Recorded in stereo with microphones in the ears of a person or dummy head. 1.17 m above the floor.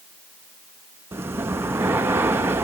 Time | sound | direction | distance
1.1 | breathing | 15° right (ahead or behind) | 0.7 m